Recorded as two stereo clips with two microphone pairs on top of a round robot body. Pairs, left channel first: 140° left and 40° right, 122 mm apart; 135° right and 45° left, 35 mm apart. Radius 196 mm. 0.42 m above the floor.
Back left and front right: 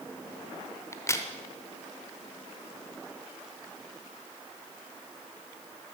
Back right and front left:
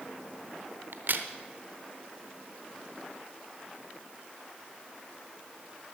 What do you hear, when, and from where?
0.9 s a crack: 75° left, 0.8 m